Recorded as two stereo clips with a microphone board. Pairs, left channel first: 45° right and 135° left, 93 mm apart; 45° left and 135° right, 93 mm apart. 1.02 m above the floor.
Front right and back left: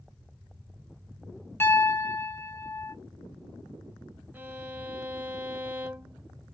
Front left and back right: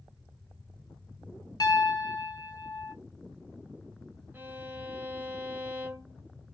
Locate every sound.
1.6 s a piano: 15° left, 0.7 m
4.3 s a violin: 175° right, 0.5 m